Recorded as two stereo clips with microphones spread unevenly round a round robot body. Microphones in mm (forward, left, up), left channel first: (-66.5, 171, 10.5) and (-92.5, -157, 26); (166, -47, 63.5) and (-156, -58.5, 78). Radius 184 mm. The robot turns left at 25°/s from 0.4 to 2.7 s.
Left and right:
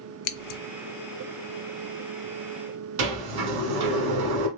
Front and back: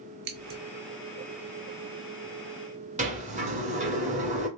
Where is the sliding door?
110° right, 1.6 m.